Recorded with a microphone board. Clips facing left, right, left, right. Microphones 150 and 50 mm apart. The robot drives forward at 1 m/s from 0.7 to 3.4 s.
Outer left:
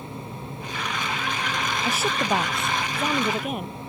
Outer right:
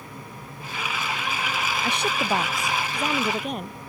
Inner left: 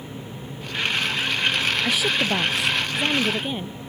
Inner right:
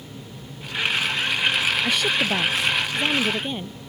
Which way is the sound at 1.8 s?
5° left (ahead or behind).